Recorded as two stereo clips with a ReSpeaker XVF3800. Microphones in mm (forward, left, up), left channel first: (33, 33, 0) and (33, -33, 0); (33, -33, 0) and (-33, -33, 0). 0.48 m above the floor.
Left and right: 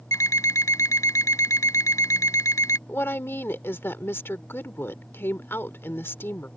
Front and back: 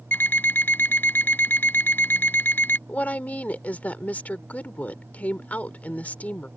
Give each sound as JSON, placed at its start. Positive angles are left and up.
{"t": 0.1, "sound": "an alarm clock", "azimuth_deg": 55}
{"t": 2.9, "sound": "a woman speaking", "azimuth_deg": 55}